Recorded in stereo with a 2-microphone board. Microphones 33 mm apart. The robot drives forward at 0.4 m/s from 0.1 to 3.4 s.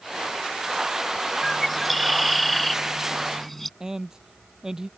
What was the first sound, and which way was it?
A bird, 5° left (ahead or behind).